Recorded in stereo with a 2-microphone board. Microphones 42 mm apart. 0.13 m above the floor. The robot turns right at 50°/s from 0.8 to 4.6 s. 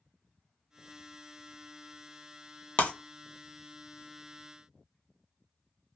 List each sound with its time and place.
2.8 s breaking glass: 35° left (ahead or behind), 0.6 m; by 2.9 s 25° left (ahead or behind), 0.6 m